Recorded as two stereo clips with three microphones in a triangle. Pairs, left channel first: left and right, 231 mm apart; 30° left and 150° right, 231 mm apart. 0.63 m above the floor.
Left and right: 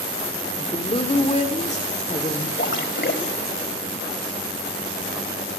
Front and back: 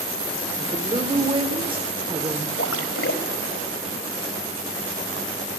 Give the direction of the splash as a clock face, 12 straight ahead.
10 o'clock.